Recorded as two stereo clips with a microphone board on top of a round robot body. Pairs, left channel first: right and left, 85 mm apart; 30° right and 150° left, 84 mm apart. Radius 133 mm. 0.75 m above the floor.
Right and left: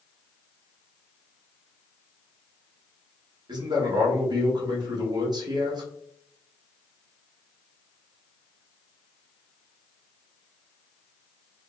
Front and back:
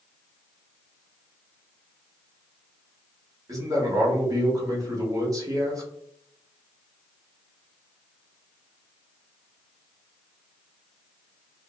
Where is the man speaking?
110° left, 1.4 m.